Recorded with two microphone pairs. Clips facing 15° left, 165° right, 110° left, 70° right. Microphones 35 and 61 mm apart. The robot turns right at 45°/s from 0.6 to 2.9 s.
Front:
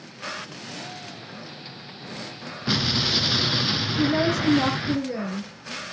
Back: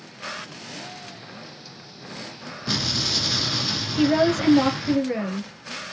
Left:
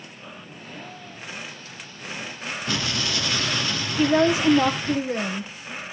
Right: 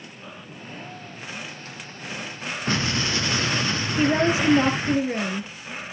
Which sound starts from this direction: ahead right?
An explosion, at 2.7 s.